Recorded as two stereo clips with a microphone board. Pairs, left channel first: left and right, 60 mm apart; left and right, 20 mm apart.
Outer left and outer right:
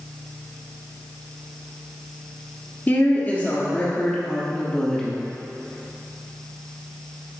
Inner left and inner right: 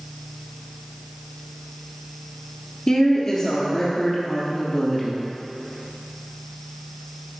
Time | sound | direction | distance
2.9 | a woman speaking | 30° left (ahead or behind) | 2 m